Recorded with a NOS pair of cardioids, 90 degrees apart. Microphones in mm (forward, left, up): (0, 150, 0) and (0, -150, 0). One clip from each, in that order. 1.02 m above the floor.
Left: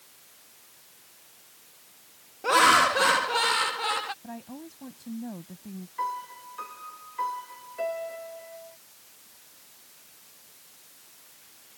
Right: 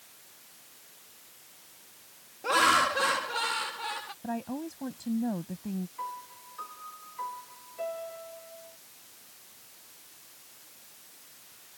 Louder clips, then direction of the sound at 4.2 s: Right 6 dB; 45° right.